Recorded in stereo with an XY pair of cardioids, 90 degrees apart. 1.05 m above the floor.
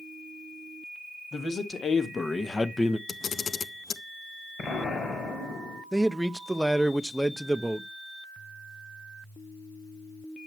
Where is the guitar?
I don't hear a guitar.